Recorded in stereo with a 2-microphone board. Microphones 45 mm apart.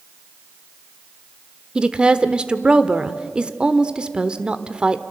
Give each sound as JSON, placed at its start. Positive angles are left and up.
{"t": 1.8, "sound": "a woman speaking", "side_deg": -25, "distance_m": 1.0}